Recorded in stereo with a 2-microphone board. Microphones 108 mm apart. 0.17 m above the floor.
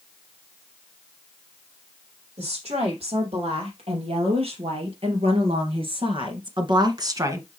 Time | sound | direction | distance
2.4 | a woman speaking | 75° right (ahead or behind) | 5 m